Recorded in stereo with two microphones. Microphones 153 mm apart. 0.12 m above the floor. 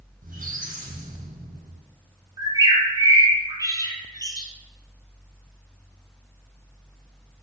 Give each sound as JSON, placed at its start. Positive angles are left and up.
{"t": 0.2, "sound": "a squeak", "side_deg": -65, "distance_m": 1.2}
{"t": 2.4, "sound": "a bird", "side_deg": -30, "distance_m": 0.7}